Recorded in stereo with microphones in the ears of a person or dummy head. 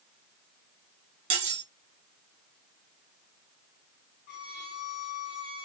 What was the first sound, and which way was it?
Cutlery clinking, 30° right (ahead or behind).